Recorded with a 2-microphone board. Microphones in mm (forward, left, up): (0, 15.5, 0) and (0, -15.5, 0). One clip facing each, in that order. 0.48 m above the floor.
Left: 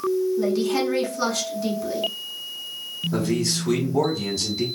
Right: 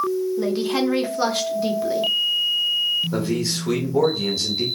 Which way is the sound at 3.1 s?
20° right (ahead or behind).